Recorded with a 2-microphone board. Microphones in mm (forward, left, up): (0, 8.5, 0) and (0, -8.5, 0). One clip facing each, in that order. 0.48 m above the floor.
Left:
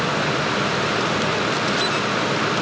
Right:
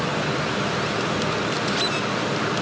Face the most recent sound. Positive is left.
No sound to turn to.